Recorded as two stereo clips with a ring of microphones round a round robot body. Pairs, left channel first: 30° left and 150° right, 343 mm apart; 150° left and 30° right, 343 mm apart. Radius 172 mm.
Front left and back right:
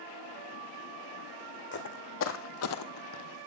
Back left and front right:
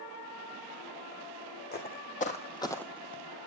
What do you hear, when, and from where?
1.7 s footsteps: 90° left, 2 m; by 3.2 s 25° left, 0.7 m